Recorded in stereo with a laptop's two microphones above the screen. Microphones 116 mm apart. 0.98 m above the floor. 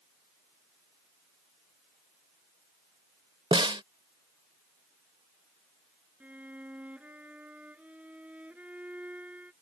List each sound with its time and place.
3.5 s a snare drum: 50° right (ahead or behind)
6.2 s a violin: 15° right (ahead or behind)